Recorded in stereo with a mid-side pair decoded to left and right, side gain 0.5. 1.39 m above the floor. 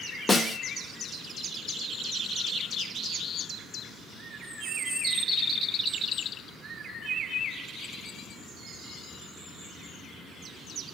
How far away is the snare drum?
About 1.0 m.